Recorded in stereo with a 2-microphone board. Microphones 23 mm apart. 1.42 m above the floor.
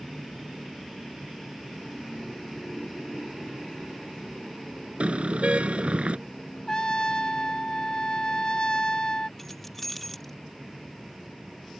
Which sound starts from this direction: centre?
Keys jangling, at 9.4 s.